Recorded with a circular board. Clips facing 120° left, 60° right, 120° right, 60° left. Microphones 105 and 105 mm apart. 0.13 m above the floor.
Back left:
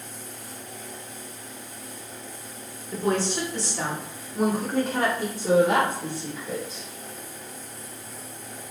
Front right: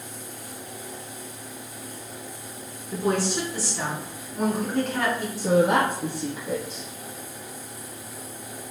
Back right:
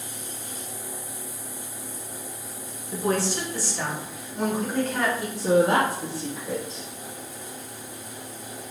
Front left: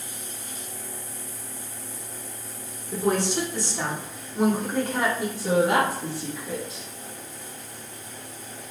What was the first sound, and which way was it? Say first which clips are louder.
A woman speaking: even, front left 1 dB; 5° left.